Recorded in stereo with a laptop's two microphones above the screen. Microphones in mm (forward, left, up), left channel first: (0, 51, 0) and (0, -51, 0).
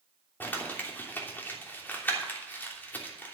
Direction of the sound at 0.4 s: 20° left (ahead or behind).